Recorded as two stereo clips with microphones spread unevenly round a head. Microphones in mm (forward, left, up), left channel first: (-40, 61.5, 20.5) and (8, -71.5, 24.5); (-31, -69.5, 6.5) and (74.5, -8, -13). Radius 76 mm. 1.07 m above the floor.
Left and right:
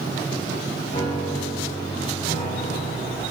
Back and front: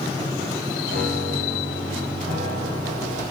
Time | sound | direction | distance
0.9 | a piano | 45° left | 6.5 m